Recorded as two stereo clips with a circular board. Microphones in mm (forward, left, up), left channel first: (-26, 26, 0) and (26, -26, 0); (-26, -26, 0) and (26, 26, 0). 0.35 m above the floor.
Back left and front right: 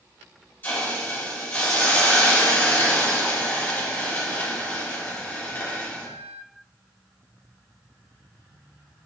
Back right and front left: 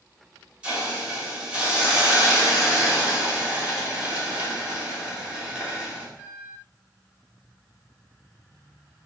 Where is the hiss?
105° left, 1.4 m.